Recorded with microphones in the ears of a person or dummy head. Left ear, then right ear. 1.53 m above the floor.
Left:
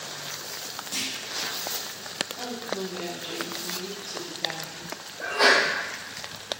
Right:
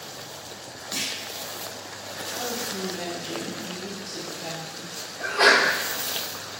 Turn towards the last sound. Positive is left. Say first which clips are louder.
# right 2 dB
turn(degrees=20)  # may be behind; listen again after turning